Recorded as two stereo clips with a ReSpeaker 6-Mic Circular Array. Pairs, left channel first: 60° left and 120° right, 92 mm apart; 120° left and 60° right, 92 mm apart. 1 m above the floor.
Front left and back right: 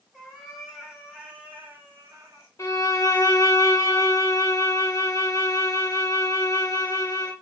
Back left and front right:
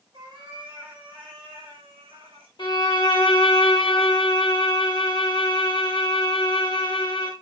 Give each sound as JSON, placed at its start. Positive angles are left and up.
{"t": 0.1, "sound": "a cat meowing", "azimuth_deg": -25, "distance_m": 2.0}
{"t": 2.6, "sound": "a violin", "azimuth_deg": 105, "distance_m": 1.0}